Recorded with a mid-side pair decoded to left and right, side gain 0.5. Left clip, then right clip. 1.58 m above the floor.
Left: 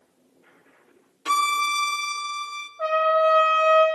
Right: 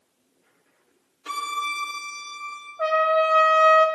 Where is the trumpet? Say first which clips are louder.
Even; 25° right, 1.3 m.